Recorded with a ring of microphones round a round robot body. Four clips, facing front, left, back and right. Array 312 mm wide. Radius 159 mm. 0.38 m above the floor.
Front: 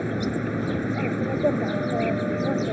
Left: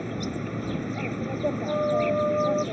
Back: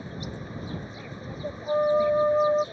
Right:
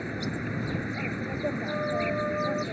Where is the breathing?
I don't hear breathing.